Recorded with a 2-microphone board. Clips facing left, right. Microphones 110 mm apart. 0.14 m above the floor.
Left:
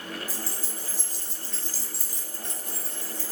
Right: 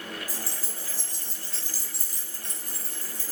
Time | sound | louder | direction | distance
0.3 | keys jangling | left 2 dB | 30° left (ahead or behind) | 1.1 m